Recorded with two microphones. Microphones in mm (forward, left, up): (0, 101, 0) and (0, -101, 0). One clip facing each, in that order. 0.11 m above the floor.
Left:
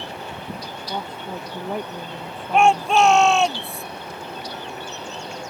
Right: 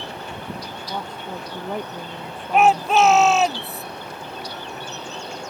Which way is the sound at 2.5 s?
5° right (ahead or behind).